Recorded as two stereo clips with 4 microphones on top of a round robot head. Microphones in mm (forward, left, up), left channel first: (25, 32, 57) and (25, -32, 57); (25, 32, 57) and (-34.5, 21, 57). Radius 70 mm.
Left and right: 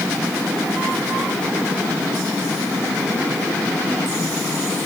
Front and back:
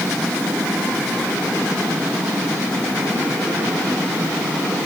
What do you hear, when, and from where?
Only background noise.